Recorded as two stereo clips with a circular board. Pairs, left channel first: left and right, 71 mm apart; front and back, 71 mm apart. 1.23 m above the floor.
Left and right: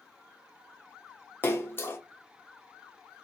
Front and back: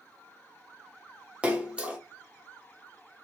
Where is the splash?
115° left, 0.5 m.